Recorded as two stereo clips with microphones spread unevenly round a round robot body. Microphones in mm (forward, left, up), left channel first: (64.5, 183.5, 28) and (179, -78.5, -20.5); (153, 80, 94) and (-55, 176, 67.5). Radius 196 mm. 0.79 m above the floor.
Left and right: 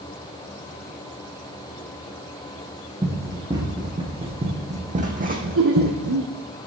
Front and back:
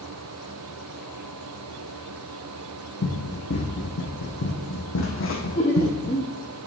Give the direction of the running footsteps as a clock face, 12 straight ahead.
11 o'clock.